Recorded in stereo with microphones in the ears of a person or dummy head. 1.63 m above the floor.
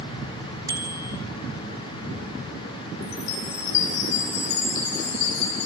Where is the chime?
45° left (ahead or behind), 8.5 m.